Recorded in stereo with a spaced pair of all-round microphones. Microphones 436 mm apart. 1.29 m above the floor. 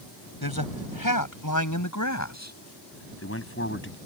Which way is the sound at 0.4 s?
55° left (ahead or behind).